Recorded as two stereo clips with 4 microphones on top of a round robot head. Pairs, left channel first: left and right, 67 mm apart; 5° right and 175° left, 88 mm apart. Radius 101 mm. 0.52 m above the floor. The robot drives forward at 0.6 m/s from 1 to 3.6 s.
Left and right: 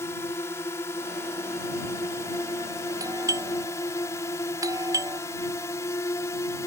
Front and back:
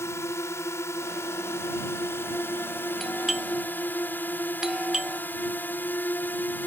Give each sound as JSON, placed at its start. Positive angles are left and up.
{"t": 0.0, "sound": "a drone", "azimuth_deg": 50}
{"t": 3.0, "sound": "a doorbell", "azimuth_deg": -90}